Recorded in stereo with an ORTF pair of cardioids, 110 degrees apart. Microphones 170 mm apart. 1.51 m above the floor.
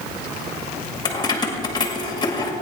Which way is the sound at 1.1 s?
25° left.